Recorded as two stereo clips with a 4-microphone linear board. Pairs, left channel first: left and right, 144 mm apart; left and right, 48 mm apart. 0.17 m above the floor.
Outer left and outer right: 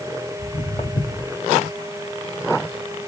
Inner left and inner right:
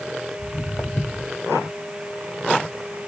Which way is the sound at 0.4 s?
30° left (ahead or behind).